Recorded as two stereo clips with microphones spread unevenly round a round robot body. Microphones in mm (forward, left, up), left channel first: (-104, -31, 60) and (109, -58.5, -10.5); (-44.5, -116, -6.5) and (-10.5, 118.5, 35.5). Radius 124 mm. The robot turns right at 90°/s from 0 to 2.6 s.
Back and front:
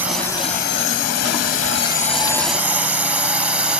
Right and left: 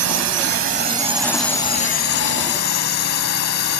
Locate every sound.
0.0 s a drone: 55° left; by 3.8 s 80° right